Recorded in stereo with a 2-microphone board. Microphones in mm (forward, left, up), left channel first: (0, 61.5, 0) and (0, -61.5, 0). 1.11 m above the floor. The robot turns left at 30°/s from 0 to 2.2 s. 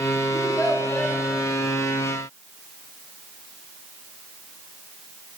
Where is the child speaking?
30° left (ahead or behind), 1.7 m; by 1.2 s centre (ahead or behind), 1.7 m.